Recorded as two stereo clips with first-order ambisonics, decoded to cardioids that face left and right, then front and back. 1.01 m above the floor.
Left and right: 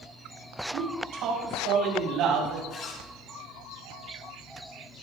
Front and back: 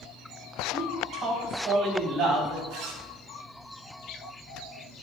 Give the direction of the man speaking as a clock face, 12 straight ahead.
4 o'clock.